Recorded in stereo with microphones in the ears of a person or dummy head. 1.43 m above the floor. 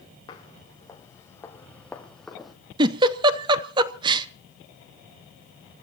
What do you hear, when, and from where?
0.3 s footsteps: 25° left (ahead or behind), 3.5 m; by 2.5 s centre (ahead or behind), 3.5 m
2.8 s a giggle: 25° right (ahead or behind), 1.1 m